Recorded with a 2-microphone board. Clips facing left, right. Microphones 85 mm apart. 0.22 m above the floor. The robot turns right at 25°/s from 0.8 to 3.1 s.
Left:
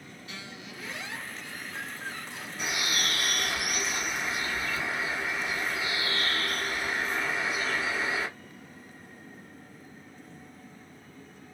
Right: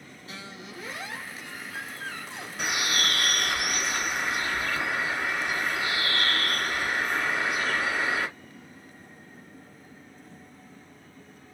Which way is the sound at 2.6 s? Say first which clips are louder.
Right 3 dB; 65° right (ahead or behind).